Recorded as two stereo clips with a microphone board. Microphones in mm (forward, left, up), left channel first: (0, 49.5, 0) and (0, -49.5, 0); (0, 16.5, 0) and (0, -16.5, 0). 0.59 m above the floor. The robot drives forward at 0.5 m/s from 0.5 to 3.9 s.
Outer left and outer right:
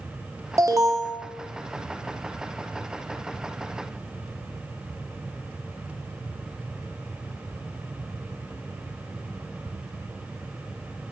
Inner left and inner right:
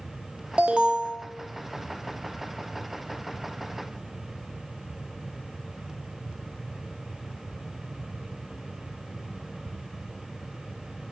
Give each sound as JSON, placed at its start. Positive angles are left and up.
{"t": 0.6, "sound": "an alarm", "side_deg": -30, "distance_m": 0.5}